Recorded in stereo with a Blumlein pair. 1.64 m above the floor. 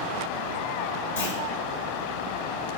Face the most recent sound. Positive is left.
turn(degrees=65)